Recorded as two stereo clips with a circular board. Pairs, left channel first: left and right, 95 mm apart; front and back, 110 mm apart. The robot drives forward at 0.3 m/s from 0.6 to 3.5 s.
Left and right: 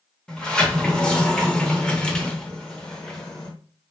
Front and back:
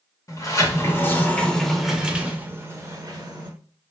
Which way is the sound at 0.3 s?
20° left.